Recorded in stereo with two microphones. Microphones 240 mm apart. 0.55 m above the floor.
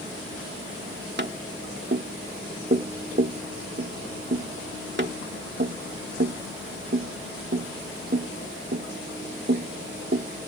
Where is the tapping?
45° right (ahead or behind).